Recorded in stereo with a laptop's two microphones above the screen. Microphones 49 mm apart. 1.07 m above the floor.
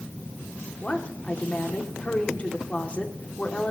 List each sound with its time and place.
0.8 s a woman speaking: 25° left (ahead or behind), 2 m